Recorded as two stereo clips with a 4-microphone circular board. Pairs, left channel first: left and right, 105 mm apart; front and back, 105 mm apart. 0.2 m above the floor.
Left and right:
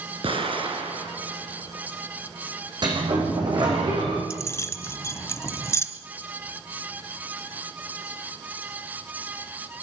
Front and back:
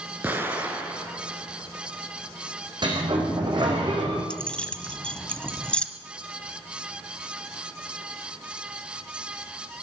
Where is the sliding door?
135° right, 6 m.